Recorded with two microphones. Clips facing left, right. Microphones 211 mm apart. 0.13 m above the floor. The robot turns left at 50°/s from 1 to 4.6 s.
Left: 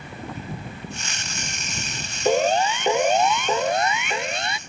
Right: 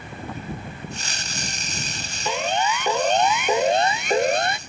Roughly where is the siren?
Left.